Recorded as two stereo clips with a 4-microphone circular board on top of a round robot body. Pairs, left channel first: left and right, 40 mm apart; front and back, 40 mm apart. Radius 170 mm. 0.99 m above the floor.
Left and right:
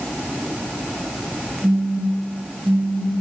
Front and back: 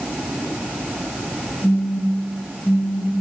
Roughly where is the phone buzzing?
Ahead right.